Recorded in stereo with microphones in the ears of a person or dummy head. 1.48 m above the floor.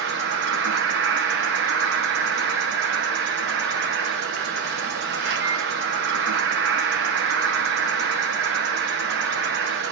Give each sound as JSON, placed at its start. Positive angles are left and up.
{"t": 0.0, "sound": "an insect", "side_deg": -60, "distance_m": 0.8}